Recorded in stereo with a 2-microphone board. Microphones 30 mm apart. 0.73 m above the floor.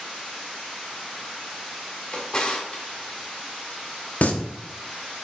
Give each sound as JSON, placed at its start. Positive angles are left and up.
{"t": 2.1, "sound": "a drawer", "side_deg": 30, "distance_m": 1.9}
{"t": 4.2, "sound": "singing", "side_deg": 50, "distance_m": 0.9}